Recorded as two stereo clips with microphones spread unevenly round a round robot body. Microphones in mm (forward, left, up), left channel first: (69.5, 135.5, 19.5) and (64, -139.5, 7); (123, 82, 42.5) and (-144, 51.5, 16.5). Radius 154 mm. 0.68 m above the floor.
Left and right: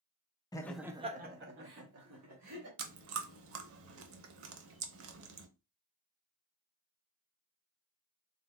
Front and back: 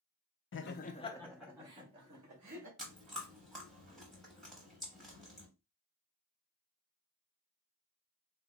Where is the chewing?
75° right, 0.6 m.